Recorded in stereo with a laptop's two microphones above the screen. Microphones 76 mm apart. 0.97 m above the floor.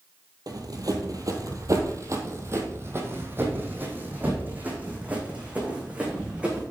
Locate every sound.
0.5 s running footsteps: 55° right (ahead or behind), 1.6 m; by 6.6 s 15° right (ahead or behind), 4.5 m